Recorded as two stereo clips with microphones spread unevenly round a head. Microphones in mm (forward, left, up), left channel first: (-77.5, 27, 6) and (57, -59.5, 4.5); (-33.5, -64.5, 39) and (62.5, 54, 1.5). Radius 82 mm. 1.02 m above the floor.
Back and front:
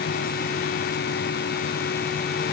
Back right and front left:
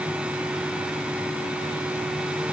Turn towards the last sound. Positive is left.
No sound to turn to.